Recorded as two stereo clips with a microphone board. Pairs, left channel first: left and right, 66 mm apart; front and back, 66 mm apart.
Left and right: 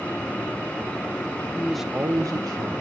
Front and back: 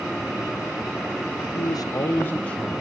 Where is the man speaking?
30° left, 0.6 m; by 2.8 s 80° right, 1.3 m.